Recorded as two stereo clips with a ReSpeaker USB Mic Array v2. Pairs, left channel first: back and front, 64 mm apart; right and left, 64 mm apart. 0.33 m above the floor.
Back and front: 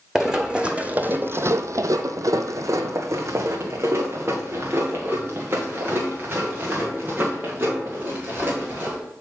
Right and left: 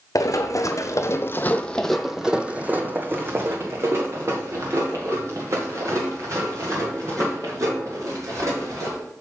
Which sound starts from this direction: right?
Running footsteps, at 0.1 s.